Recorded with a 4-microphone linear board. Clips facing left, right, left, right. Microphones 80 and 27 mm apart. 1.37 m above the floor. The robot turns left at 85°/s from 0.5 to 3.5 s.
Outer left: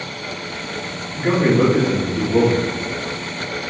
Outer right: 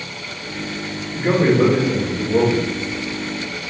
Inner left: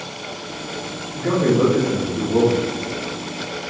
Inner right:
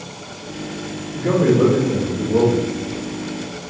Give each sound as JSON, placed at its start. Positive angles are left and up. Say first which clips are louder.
{"t": 1.1, "sound": "a man speaking", "louder": "outer right 1 dB, inner right 2 dB", "azimuth_deg": -170, "distance_m": 2.5}